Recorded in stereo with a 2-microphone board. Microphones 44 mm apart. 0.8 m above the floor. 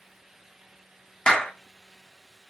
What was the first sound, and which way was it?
A clap, 25° left (ahead or behind).